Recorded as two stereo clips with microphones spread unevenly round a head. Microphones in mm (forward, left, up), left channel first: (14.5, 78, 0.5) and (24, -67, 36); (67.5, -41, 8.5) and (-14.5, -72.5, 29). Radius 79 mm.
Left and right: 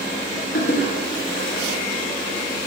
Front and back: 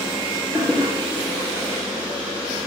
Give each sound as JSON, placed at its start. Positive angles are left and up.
{"t": 0.5, "sound": "a toilet flushing", "azimuth_deg": 120, "distance_m": 1.6}